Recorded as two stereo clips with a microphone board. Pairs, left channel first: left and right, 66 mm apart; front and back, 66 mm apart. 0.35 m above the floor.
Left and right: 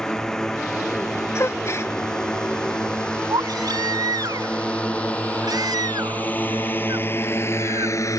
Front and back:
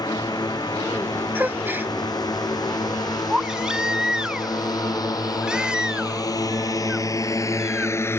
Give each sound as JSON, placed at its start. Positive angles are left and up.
{"t": 0.0, "sound": "a drone", "azimuth_deg": 5}
{"t": 1.4, "sound": "a gasp", "azimuth_deg": 125}
{"t": 3.3, "sound": "a baby crying", "azimuth_deg": -100}